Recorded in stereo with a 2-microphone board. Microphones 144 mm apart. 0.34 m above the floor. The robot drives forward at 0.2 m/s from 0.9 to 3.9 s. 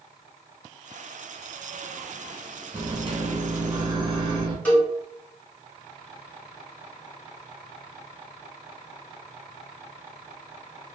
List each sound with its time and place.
2.7 s a microwave: 35° right (ahead or behind), 0.7 m
4.7 s a cowbell: 10° left (ahead or behind), 1.3 m